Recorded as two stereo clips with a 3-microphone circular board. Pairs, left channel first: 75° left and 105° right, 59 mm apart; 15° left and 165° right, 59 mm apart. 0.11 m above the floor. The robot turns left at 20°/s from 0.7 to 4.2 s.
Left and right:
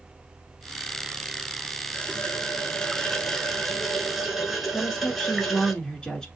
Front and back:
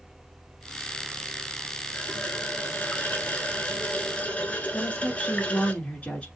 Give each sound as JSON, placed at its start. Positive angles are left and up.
{"t": 1.9, "sound": "a running tap", "azimuth_deg": 30, "distance_m": 0.9}
{"t": 4.7, "sound": "a woman speaking", "azimuth_deg": 15, "distance_m": 1.3}